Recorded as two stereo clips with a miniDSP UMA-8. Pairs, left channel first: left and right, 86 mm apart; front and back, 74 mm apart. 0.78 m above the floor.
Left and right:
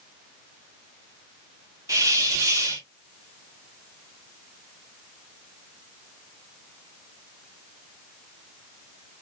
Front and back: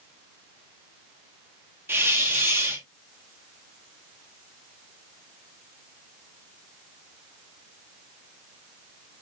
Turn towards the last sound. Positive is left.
turn(degrees=-125)